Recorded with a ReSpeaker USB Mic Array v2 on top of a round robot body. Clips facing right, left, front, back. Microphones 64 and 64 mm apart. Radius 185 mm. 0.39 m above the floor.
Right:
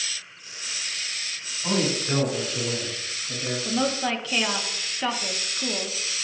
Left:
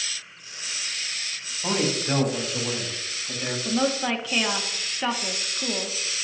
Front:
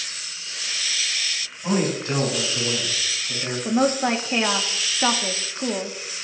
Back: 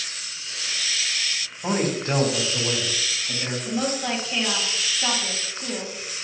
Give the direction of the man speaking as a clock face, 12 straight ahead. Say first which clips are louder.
Even, front 1 dB; 7 o'clock.